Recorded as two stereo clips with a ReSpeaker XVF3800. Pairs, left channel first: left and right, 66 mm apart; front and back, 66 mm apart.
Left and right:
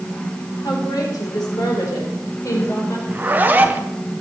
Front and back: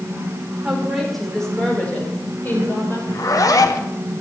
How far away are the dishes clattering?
I don't hear dishes clattering.